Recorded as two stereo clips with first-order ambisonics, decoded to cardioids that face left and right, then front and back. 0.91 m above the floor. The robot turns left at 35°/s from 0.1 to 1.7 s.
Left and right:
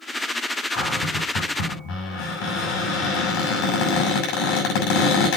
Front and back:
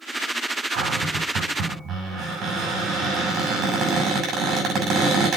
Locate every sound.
0.7 s a cupboard door: 155° left, 6.5 m; by 5.4 s 120° left, 6.5 m